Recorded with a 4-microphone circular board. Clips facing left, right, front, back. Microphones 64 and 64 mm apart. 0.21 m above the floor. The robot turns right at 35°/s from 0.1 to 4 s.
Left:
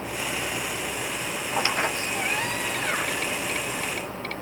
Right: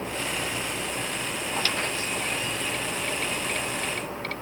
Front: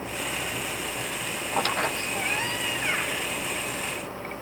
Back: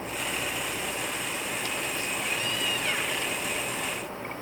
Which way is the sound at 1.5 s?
20° left.